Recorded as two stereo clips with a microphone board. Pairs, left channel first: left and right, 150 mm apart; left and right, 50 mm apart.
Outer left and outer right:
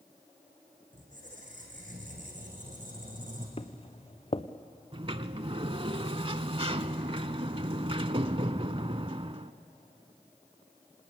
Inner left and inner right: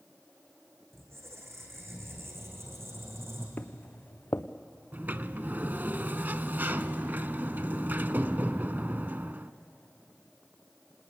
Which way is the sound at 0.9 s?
60° right (ahead or behind).